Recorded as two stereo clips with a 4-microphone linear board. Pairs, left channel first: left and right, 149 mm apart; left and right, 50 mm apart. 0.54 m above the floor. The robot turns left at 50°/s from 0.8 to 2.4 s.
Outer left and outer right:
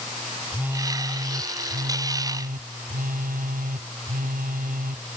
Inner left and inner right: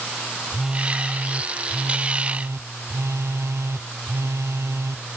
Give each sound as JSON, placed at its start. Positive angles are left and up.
{"t": 0.5, "sound": "a phone buzzing", "azimuth_deg": -10}